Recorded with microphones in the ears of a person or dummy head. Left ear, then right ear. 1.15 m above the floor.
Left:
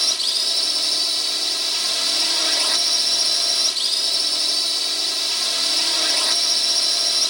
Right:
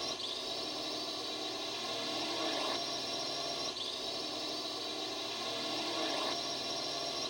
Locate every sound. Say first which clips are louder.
0.0 s a drone: left 18 dB; 60° left (ahead or behind)